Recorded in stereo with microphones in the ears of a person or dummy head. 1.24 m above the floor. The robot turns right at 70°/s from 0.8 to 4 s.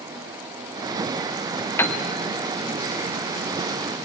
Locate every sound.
1.8 s a piano: 20° left (ahead or behind), 1.5 m; by 2.0 s 10° left (ahead or behind), 1.5 m